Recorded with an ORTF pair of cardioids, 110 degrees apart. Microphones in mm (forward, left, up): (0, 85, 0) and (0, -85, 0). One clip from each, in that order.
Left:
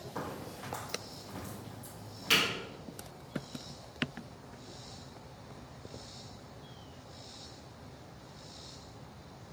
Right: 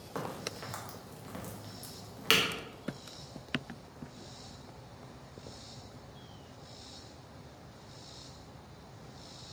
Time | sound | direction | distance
0.1 | a crack | 55° right | 1.0 m